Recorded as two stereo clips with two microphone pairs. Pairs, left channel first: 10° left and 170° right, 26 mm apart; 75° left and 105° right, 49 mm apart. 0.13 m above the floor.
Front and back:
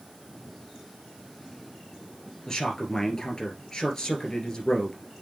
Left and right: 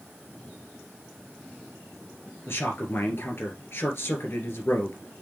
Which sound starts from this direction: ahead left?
A man speaking, at 2.5 s.